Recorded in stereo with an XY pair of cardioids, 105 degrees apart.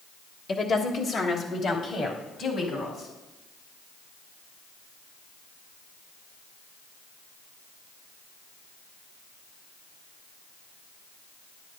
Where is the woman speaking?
50° left, 1.1 m; by 3.1 s 65° left, 4.5 m.